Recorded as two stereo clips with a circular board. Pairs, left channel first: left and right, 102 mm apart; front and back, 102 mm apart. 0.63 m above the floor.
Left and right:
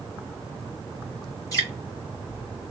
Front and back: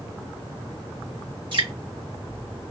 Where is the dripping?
145° left, 2 m.